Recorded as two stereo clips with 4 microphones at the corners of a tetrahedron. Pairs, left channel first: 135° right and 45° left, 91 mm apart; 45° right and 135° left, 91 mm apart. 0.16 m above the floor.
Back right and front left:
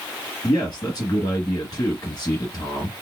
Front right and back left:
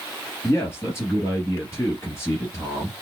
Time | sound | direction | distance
0.4 | a man speaking | 100° right | 2.5 m